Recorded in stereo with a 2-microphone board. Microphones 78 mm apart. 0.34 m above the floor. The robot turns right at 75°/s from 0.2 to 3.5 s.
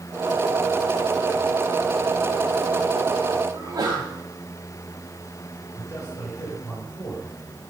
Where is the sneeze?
50° right (ahead or behind), 1.8 m.